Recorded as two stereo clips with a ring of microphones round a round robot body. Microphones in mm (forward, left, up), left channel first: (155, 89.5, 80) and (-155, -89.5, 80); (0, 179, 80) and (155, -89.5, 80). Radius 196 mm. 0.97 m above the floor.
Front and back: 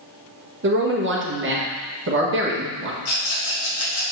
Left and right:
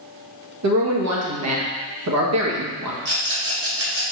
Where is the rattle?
15° right, 2 m.